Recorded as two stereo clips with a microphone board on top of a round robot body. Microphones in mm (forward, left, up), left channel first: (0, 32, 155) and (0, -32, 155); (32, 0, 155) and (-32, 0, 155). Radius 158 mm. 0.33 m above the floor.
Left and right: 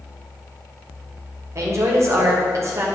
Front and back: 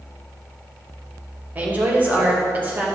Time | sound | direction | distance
1.6 | a woman speaking | 120° right | 2.5 m